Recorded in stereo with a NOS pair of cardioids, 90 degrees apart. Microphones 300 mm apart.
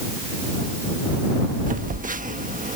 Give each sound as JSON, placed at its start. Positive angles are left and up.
{"t": 1.7, "sound": "a phone buzzing", "azimuth_deg": -25}